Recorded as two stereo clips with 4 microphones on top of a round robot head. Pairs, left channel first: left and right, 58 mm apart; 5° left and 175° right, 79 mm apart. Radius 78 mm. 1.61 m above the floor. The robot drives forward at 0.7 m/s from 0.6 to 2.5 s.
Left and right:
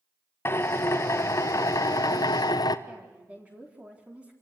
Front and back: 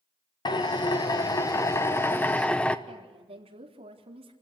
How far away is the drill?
About 2.0 m.